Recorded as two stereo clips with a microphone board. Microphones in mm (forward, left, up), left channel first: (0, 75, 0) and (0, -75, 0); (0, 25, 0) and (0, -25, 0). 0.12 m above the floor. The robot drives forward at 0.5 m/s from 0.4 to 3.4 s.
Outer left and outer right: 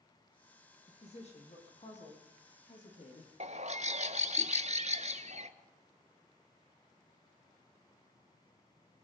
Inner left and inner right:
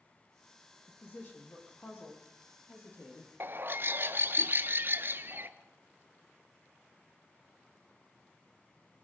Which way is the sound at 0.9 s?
45° left (ahead or behind).